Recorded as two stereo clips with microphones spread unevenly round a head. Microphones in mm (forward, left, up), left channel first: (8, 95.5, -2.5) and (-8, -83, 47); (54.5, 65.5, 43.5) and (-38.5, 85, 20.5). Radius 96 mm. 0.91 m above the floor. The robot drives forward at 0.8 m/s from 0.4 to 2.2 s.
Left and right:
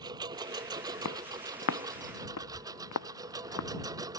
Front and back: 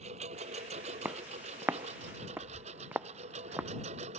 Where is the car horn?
I don't hear a car horn.